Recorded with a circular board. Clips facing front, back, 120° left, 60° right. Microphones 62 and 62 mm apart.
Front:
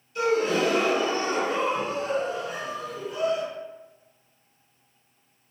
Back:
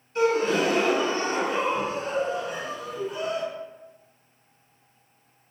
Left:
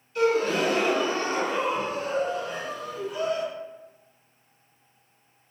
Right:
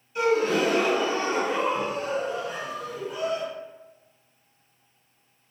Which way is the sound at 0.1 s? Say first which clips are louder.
Back 1 dB, even; 130° right.